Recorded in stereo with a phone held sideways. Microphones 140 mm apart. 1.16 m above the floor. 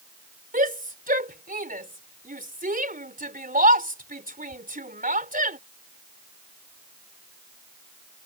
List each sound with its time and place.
0.5 s a shout: 85° right